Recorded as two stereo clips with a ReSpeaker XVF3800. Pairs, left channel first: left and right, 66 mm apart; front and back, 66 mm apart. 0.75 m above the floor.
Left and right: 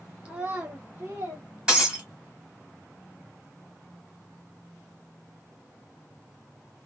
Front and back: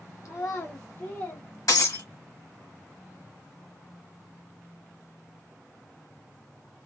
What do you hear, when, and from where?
0.2 s a child speaking: 25° right, 0.6 m; by 1.5 s 45° right, 1.3 m
1.7 s breaking glass: 15° right, 1.6 m